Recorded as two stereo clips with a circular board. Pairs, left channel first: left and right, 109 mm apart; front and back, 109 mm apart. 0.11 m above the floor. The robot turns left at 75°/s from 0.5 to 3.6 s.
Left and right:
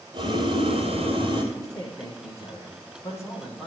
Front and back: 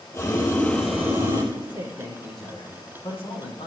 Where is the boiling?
65° right, 3.5 m; by 1.4 s 135° right, 3.5 m.